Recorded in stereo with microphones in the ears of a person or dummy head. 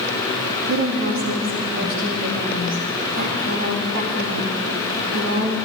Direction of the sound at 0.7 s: 55° right (ahead or behind).